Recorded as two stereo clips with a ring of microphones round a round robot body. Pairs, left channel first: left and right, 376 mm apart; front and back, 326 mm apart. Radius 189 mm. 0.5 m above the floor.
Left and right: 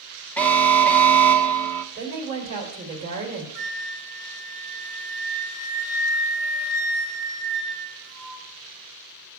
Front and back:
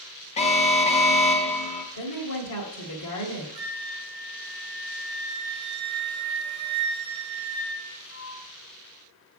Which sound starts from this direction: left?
A flute, at 3.5 s.